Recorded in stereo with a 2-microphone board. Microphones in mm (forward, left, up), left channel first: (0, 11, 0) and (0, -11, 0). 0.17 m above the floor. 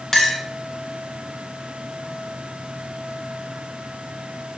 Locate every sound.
0.1 s a clink: 20° left (ahead or behind), 0.7 m